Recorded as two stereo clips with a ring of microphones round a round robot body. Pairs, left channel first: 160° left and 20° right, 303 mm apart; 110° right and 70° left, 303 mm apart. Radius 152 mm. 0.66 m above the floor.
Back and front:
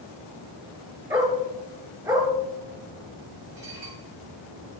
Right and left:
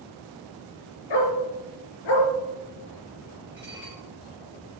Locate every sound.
1.1 s a dog barking: 100° right, 4 m
3.5 s dishes clattering: 10° right, 6.5 m